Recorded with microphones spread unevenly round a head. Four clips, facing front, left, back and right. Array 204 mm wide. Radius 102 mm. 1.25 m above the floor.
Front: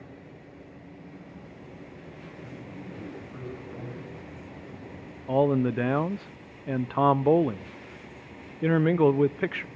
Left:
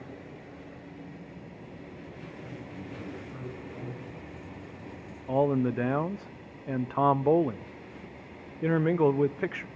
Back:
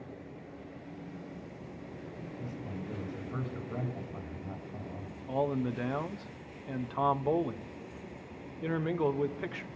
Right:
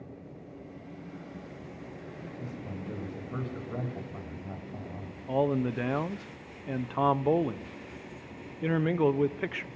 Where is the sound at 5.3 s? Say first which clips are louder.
Left 2 dB, front 8 dB; 15° left, 0.7 m.